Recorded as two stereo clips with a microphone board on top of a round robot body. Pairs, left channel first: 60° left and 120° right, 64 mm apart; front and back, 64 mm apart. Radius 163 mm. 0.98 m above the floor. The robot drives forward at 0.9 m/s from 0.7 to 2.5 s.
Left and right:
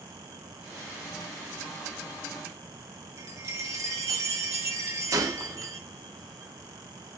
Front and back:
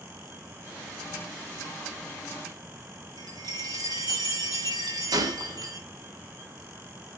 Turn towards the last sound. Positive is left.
turn(degrees=-155)